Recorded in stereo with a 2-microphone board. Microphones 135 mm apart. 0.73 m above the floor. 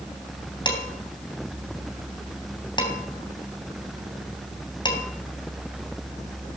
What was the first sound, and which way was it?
Dishes clattering, 30° left (ahead or behind).